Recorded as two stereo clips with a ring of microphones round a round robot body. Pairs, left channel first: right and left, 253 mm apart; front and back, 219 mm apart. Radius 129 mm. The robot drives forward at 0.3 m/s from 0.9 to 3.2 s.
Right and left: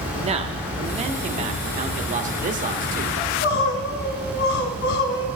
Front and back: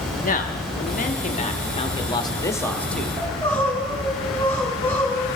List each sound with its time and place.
0.2 s a man speaking: 35° left, 1.2 m; by 3.1 s 85° left, 0.9 m
3.2 s crying: 85° right, 1.9 m